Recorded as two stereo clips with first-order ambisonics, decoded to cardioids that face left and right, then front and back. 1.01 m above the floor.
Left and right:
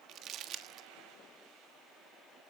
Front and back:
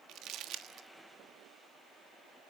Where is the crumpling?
135° right, 1.4 m.